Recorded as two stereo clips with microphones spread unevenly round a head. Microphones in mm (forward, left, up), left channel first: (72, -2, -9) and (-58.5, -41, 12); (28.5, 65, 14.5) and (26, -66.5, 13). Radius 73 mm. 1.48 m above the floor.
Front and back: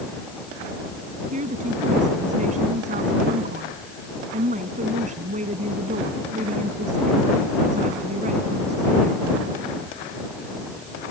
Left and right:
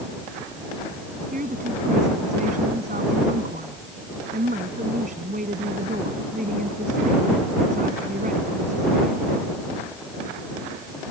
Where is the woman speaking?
135° right.